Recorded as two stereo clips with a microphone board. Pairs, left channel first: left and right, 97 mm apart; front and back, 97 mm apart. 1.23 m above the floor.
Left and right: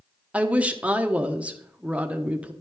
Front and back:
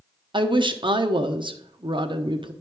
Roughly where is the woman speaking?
Behind.